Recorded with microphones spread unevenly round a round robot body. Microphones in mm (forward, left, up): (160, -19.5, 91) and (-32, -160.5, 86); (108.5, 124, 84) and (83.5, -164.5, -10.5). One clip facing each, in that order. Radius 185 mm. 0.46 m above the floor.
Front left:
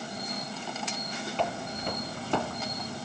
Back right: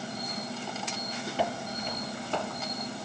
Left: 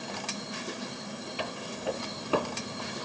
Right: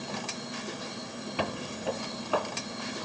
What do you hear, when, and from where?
1.4 s footsteps: 65° right, 0.6 m; by 3.0 s 55° left, 1.5 m